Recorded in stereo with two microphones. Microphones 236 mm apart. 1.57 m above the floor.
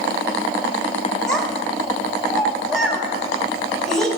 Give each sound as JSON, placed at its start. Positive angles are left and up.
{"t": 1.3, "sound": "a child speaking", "side_deg": 5, "distance_m": 1.8}